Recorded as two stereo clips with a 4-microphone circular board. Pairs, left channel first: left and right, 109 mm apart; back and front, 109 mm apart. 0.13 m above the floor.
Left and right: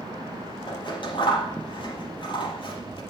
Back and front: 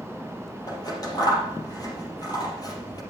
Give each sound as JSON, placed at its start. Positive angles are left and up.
{"t": 0.7, "sound": "scissors", "azimuth_deg": 130, "distance_m": 4.5}